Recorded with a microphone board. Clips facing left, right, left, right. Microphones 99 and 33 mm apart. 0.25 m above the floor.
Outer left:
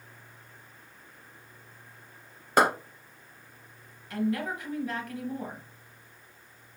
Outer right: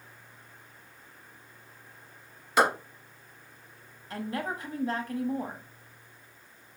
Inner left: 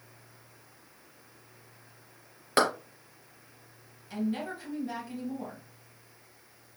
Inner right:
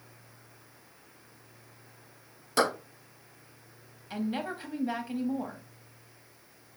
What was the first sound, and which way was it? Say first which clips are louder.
A clap: outer left 1 dB, inner left 1 dB; 45° left (ahead or behind).